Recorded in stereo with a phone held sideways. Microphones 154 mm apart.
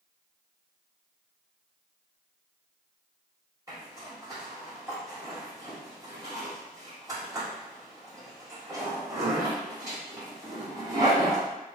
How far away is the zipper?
About 1.2 m.